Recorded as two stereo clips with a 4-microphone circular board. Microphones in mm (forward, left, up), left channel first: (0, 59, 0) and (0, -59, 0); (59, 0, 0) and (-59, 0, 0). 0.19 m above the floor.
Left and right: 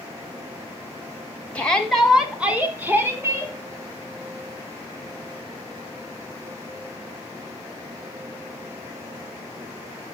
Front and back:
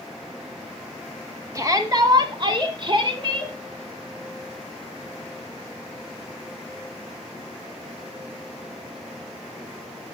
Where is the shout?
155° left, 1.4 m; by 3.5 s 150° right, 2 m.